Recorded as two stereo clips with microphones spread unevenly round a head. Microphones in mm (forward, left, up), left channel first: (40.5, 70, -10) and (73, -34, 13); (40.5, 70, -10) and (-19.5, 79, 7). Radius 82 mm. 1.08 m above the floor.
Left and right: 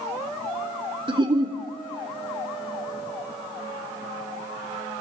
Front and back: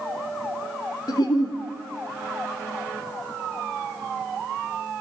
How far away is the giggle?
About 1.5 m.